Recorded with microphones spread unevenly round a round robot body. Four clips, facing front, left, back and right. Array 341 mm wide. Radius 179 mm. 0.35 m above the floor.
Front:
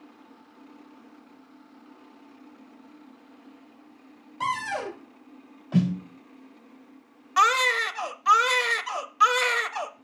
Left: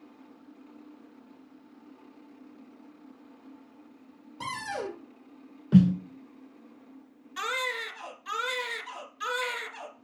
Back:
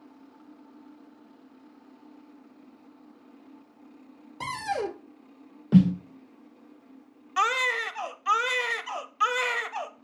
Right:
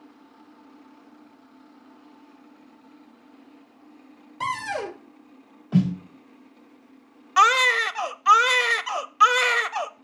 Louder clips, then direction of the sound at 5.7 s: Left 2 dB, back 5 dB; 140° left.